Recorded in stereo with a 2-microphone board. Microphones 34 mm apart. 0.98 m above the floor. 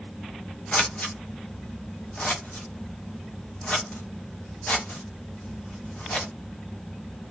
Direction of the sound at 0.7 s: 40° left (ahead or behind).